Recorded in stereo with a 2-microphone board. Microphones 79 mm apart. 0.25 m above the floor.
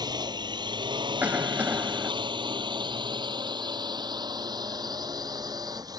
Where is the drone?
60° right (ahead or behind); by 6.0 s 55° right (ahead or behind).